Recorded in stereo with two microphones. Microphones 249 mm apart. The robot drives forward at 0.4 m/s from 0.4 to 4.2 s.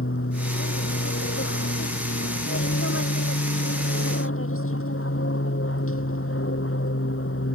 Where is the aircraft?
65° left (ahead or behind).